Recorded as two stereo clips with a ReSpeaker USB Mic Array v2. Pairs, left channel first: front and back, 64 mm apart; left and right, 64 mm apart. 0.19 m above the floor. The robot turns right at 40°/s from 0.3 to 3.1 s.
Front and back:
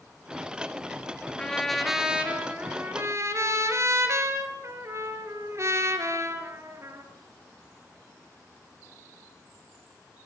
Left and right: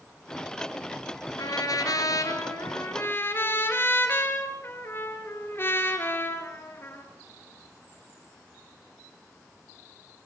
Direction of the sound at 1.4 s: 75° left.